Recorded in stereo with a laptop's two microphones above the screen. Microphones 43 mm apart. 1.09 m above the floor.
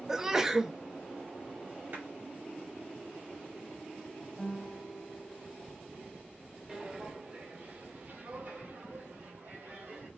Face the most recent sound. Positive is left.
turn(degrees=-60)  # may be behind; listen again after turning